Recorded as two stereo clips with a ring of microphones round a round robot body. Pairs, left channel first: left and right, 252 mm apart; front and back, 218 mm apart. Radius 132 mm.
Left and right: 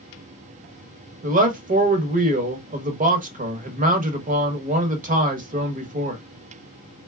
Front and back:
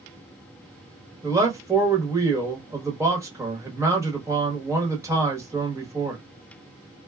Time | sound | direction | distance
1.2 | a man speaking | 115° right | 1.0 m